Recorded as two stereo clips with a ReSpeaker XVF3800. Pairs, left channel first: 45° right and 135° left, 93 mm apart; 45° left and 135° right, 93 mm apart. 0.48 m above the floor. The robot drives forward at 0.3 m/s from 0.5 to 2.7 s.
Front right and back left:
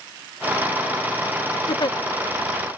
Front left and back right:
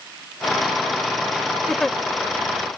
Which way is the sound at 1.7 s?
40° right.